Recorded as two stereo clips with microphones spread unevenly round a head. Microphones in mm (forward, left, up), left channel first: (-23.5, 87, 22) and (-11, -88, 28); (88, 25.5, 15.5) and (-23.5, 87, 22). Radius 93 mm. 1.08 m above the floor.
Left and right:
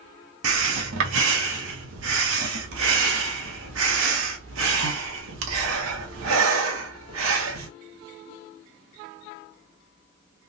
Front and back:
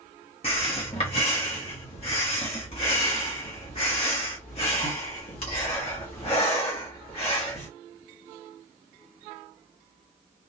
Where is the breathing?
90° right, 0.9 m.